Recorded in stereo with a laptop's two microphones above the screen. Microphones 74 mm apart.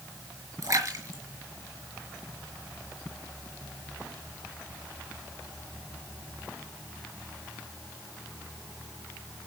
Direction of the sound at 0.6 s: 50° right (ahead or behind).